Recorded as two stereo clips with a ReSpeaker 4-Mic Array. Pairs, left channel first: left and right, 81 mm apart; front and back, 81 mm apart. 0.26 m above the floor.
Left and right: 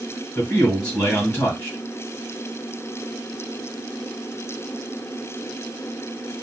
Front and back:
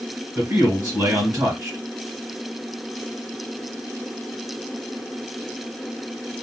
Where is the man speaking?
155° left, 1.7 m.